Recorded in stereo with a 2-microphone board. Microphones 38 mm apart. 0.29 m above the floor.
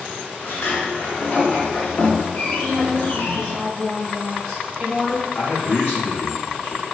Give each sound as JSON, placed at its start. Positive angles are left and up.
{"t": 0.4, "sound": "a sliding door", "side_deg": 60, "distance_m": 0.9}
{"t": 2.6, "sound": "a woman speaking", "side_deg": -15, "distance_m": 1.3}
{"t": 5.3, "sound": "a man speaking", "side_deg": 55, "distance_m": 2.0}